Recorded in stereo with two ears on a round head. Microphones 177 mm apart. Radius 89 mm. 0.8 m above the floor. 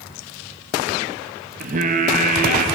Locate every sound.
1.6 s singing: 40° right (ahead or behind), 0.7 m